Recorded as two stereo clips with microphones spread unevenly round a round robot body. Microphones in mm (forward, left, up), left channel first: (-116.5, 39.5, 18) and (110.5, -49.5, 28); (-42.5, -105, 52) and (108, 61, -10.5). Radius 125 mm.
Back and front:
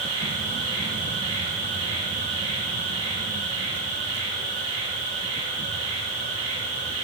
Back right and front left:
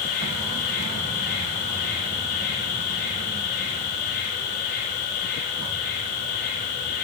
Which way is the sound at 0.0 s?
85° right.